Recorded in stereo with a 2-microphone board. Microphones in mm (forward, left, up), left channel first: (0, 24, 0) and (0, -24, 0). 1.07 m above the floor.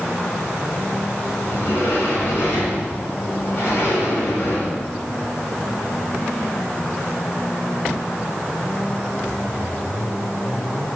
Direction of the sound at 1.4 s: 45° left (ahead or behind).